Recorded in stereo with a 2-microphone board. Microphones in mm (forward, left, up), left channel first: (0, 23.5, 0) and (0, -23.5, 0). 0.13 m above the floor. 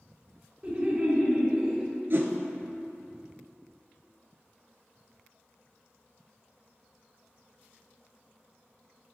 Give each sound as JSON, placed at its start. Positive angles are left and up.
{"t": 0.6, "sound": "laughter", "side_deg": -25, "distance_m": 1.8}
{"t": 2.1, "sound": "a whoosh", "side_deg": -55, "distance_m": 0.7}